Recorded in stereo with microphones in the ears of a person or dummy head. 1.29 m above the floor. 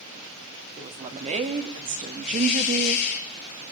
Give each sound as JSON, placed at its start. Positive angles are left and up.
{"t": 0.8, "sound": "a woman speaking", "side_deg": -30, "distance_m": 4.0}
{"t": 2.2, "sound": "a hiss", "side_deg": 55, "distance_m": 3.5}